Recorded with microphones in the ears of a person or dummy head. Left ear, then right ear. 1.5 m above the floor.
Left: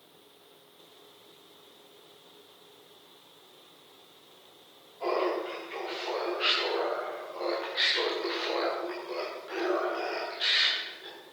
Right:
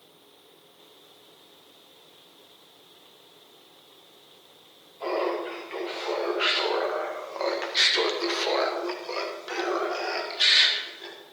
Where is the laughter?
15° right (ahead or behind), 3 m; by 11.2 s 55° right (ahead or behind), 4.5 m.